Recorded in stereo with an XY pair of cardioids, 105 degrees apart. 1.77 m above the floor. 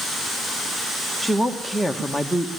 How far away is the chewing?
No chewing in this recording.